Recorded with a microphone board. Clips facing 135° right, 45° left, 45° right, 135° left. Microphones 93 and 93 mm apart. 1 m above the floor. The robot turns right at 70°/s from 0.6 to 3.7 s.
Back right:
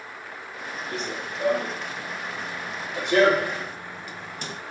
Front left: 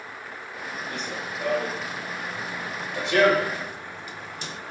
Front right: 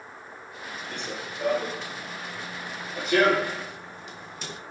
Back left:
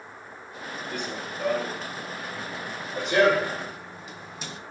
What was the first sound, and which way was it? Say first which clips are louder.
Running footsteps: back right 1 dB, back left 2 dB; 155° right.